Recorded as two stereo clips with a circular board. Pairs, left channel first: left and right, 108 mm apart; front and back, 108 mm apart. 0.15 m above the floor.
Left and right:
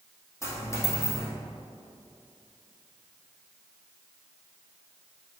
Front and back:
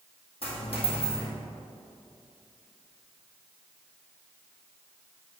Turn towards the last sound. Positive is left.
turn(degrees=25)